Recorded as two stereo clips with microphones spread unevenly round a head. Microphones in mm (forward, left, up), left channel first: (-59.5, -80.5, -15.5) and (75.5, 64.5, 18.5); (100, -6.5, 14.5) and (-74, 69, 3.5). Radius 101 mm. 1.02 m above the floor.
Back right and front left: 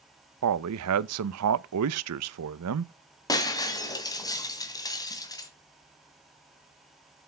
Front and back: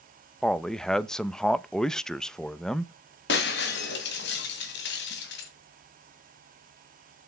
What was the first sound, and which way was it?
A man speaking, 65° left.